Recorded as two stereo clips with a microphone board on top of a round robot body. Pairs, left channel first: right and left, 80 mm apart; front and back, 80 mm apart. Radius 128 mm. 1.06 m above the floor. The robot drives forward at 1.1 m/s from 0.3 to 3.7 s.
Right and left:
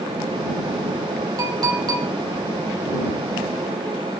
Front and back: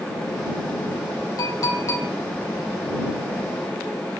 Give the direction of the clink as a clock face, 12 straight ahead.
10 o'clock.